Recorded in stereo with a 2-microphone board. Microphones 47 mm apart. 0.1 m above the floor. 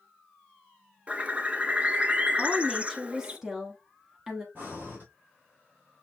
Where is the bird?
25° right (ahead or behind), 0.6 m.